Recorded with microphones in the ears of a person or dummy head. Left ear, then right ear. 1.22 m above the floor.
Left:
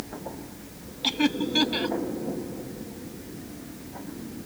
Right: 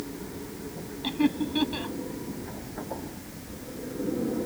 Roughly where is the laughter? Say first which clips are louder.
Left 3 dB; left.